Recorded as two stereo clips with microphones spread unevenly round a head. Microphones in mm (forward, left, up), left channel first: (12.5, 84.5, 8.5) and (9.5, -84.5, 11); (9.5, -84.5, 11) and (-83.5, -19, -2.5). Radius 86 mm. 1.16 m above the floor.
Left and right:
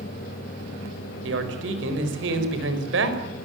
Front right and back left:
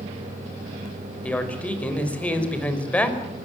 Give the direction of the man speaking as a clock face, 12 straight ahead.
4 o'clock.